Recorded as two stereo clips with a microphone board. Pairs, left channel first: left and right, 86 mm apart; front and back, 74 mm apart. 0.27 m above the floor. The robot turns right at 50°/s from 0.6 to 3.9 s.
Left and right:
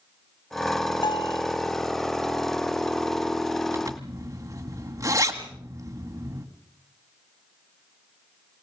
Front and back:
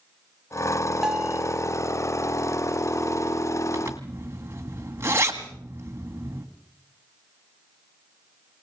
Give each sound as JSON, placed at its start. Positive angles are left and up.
{"t": 1.0, "sound": "a bell", "azimuth_deg": 95, "distance_m": 1.0}
{"t": 3.7, "sound": "a zipper", "azimuth_deg": -140, "distance_m": 1.8}